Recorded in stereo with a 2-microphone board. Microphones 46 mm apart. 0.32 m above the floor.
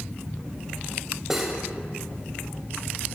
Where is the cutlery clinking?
10° right (ahead or behind), 0.9 m.